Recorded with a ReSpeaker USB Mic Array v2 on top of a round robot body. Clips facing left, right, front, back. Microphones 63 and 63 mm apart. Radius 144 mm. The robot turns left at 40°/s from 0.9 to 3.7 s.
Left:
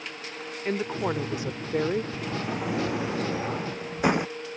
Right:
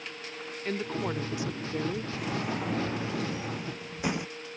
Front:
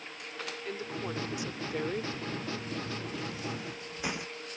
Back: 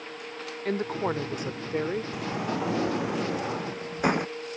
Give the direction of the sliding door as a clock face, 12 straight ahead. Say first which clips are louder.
Left 1 dB, back 7 dB; 5 o'clock.